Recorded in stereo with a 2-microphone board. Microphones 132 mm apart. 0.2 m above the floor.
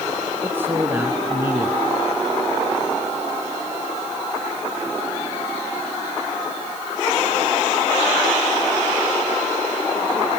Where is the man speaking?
15° right (ahead or behind), 2.5 m.